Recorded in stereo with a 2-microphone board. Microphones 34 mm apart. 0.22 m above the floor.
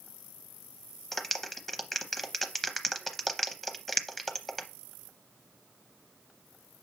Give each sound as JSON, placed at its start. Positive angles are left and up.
{"t": 1.1, "sound": "a clap", "side_deg": 5, "distance_m": 0.8}